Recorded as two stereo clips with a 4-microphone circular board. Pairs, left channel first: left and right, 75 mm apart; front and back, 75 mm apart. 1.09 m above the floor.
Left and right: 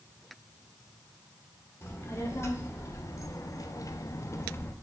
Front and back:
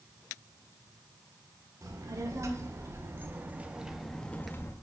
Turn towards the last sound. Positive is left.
turn(degrees=40)